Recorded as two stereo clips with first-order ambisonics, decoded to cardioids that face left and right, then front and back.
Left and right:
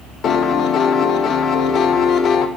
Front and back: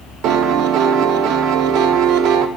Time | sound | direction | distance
0.2 | a piano | 145° left | 0.7 m